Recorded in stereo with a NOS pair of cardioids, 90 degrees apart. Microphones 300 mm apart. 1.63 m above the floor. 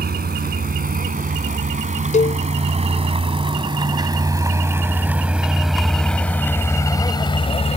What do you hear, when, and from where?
0.0 s a vehicle: 30° right; by 7.8 s 25° left
2.1 s a cowbell: 25° left